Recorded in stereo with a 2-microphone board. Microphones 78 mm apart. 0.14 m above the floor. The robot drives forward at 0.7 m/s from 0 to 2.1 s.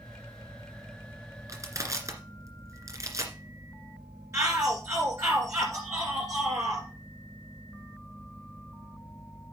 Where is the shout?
45° right (ahead or behind), 1.9 m.